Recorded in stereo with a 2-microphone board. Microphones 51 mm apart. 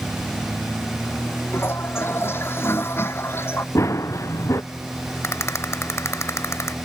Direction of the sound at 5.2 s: 65° left (ahead or behind).